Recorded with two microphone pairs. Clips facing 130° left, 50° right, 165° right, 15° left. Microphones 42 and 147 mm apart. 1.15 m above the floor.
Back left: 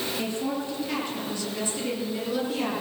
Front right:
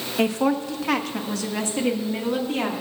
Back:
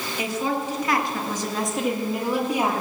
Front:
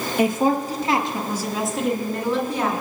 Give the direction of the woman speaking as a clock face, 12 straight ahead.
1 o'clock.